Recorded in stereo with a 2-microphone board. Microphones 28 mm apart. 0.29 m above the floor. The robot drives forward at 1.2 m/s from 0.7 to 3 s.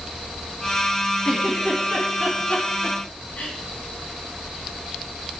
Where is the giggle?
30° left (ahead or behind), 3 m; by 3.5 s 60° left (ahead or behind), 1.9 m.